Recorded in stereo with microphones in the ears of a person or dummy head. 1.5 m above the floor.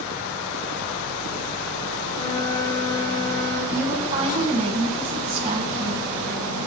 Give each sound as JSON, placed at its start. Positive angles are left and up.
{"t": 2.1, "sound": "a flute", "side_deg": 25, "distance_m": 2.0}
{"t": 3.7, "sound": "a woman speaking", "side_deg": -20, "distance_m": 1.3}